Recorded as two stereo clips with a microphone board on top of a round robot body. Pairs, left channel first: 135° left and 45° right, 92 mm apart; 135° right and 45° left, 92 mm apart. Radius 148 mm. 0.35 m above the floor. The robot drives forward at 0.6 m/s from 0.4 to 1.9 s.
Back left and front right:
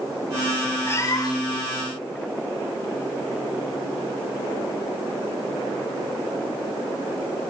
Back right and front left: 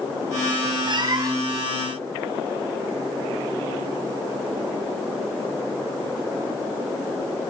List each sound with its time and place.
0.9 s a cat meowing: 75° left, 0.8 m; by 1.6 s 110° left, 0.8 m